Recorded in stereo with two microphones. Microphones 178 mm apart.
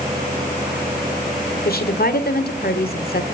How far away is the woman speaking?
About 1.6 m.